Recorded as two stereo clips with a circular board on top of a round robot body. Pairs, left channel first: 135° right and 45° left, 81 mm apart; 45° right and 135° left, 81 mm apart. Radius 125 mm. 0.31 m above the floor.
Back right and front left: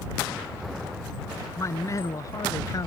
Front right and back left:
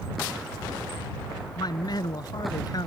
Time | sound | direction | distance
1.6 | a man speaking | 80° right | ?